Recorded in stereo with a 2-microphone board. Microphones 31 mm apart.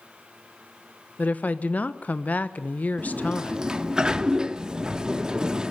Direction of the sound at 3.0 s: 20° right (ahead or behind).